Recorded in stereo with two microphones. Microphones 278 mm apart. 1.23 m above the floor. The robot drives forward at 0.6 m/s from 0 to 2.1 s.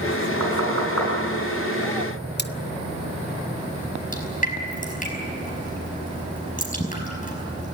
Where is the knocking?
80° left, 8 m; by 1.1 s 75° left (ahead or behind), 8.5 m.